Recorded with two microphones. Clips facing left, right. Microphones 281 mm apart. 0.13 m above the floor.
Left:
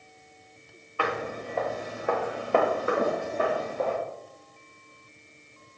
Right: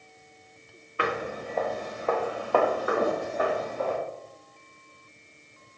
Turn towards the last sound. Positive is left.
turn(degrees=45)  # may be behind; listen again after turning